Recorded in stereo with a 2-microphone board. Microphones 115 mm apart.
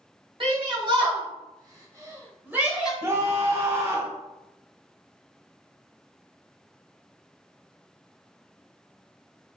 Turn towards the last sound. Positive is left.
turn(degrees=-25)  # may be behind; listen again after turning